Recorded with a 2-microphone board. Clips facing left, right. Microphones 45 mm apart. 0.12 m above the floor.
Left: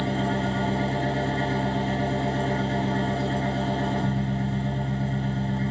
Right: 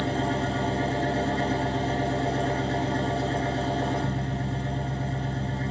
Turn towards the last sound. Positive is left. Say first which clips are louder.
# left 1 dB
turn(degrees=15)  # may be behind; listen again after turning